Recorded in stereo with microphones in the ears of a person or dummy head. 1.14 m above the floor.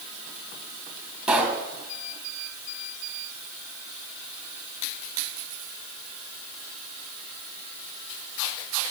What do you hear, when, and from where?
1.3 s a pop: 5° right (ahead or behind), 1.5 m